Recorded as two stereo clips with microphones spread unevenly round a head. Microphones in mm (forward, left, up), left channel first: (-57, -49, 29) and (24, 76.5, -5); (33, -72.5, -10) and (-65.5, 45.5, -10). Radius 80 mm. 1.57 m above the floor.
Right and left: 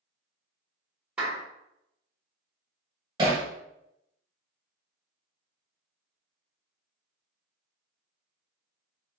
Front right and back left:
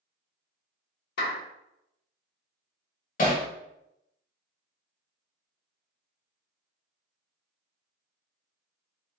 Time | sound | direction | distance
1.2 | a clap | 30° right | 1.6 m
3.2 | hammering | 15° right | 1.4 m